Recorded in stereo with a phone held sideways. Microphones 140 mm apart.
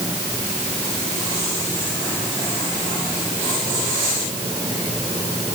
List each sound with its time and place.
Only background noise.